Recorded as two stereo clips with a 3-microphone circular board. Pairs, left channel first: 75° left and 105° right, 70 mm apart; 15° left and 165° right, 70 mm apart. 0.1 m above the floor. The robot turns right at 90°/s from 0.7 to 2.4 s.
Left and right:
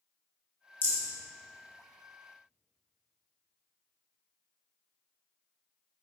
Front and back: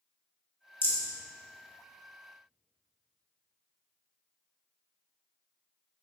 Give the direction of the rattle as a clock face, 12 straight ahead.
8 o'clock.